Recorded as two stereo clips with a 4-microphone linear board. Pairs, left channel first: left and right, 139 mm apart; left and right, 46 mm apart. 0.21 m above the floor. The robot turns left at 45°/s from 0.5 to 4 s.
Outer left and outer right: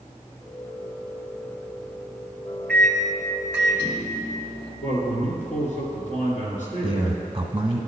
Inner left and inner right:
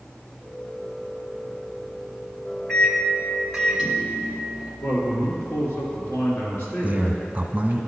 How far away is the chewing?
I don't hear chewing.